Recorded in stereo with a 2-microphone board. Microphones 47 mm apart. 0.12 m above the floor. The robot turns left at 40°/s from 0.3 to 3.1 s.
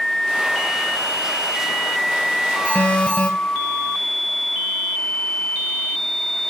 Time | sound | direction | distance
2.6 | an alarm | 40° left (ahead or behind) | 2.5 m